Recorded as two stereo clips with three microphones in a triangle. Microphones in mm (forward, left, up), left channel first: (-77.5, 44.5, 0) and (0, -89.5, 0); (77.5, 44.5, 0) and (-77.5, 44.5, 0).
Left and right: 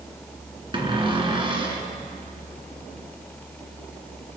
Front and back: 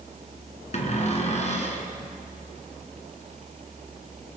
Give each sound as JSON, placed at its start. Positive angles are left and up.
{"t": 0.7, "sound": "a cupboard door", "azimuth_deg": -15, "distance_m": 2.0}